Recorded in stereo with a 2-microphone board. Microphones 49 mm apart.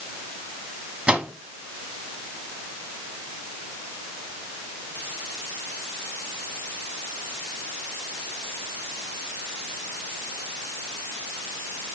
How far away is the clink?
I don't hear a clink.